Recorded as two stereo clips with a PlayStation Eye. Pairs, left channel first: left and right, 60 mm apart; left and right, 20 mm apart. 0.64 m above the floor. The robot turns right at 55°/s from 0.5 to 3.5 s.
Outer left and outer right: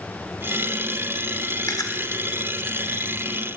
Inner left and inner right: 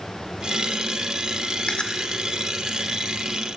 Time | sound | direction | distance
1.7 | chewing | 75° left (ahead or behind) | 0.9 m